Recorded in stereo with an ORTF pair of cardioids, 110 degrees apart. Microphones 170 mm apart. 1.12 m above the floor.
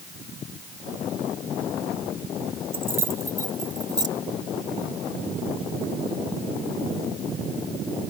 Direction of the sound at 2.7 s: 15° right.